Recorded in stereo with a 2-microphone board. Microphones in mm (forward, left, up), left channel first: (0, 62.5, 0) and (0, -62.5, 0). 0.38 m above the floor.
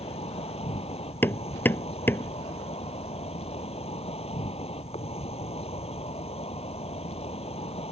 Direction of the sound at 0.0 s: 55° left (ahead or behind).